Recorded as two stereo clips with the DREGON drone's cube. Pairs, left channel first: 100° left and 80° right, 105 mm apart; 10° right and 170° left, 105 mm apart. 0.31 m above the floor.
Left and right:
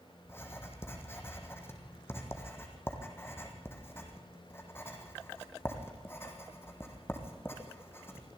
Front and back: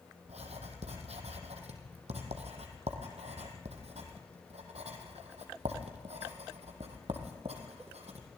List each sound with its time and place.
0.2 s writing: 170° left, 3 m